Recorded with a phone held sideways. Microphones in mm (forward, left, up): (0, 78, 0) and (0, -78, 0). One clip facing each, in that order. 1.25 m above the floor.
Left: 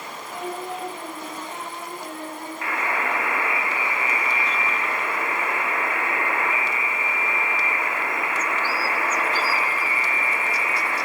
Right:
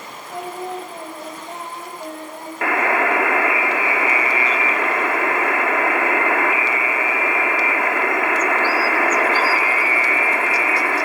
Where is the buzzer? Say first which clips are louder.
Right 9 dB; 80° right, 2 m.